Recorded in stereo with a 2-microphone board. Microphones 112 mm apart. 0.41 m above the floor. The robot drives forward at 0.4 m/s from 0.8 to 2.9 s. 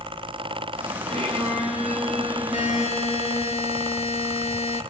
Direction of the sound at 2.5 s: 75° left (ahead or behind).